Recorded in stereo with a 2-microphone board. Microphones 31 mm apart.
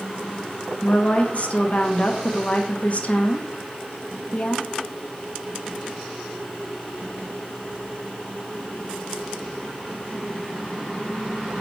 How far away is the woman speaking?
About 1.1 m.